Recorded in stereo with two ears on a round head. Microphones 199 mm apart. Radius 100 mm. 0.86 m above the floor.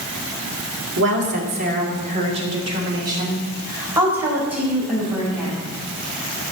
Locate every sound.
1.0 s a woman speaking: 55° right (ahead or behind), 2.5 m; by 5.6 s centre (ahead or behind), 6 m